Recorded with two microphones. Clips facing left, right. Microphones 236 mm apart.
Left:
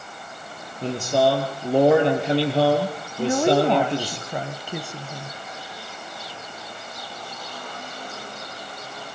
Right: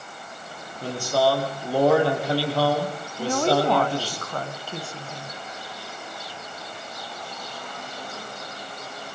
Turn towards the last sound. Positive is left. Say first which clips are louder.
# left 3 dB
turn(degrees=15)  # may be behind; listen again after turning